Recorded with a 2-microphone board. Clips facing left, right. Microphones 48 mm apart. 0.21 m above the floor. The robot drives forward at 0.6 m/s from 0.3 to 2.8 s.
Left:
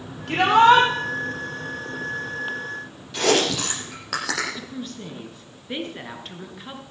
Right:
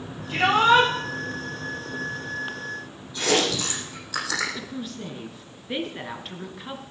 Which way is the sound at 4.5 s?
Centre (ahead or behind).